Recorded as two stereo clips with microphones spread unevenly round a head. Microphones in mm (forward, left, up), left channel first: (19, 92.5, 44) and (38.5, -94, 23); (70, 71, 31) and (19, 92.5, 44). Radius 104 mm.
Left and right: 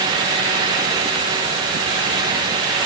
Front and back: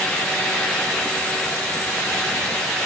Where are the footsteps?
I don't hear footsteps.